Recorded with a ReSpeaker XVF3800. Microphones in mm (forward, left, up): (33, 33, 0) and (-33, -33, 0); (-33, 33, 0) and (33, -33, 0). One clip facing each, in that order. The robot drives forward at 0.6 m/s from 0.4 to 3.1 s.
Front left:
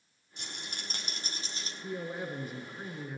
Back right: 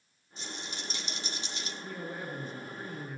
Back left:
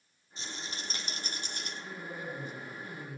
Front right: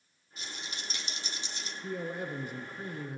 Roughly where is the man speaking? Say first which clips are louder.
Front left 4 dB, front right 8 dB; ahead right.